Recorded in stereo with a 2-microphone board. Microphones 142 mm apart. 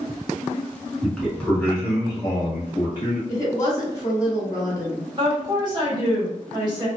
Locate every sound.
1.0 s a man speaking: centre (ahead or behind), 1.4 m; by 3.2 s 35° left (ahead or behind), 1.3 m
3.3 s a woman speaking: 25° left (ahead or behind), 1.0 m
5.2 s a woman speaking: 30° right (ahead or behind), 1.7 m